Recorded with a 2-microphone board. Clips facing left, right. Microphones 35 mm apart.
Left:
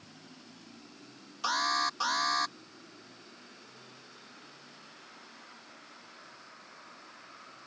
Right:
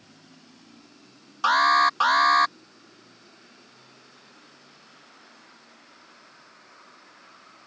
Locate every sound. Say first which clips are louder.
1.4 s an alarm: right 11 dB; 50° right (ahead or behind)